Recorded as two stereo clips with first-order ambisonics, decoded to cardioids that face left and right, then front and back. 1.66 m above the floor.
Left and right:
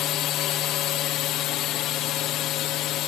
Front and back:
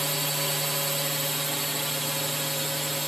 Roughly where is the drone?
Left.